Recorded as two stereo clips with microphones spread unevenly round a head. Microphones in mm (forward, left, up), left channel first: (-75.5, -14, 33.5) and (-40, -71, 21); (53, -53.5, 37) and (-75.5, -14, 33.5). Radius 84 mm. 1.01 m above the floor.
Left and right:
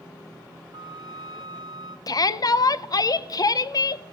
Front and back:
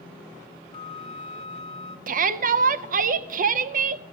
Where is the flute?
75° right, 1.2 m.